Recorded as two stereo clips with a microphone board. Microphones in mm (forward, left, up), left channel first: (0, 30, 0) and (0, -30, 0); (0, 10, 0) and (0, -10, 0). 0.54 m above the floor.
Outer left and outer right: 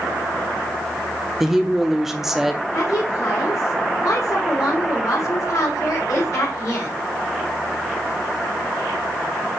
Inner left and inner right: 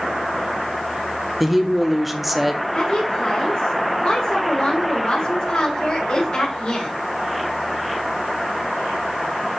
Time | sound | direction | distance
1.4 | a woman speaking | 5° right (ahead or behind) | 0.8 m
2.7 | a woman speaking | 65° left (ahead or behind) | 3 m